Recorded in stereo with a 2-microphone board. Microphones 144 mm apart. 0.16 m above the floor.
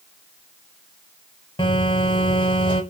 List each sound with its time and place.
1.6 s a phone buzzing: 35° left (ahead or behind), 0.7 m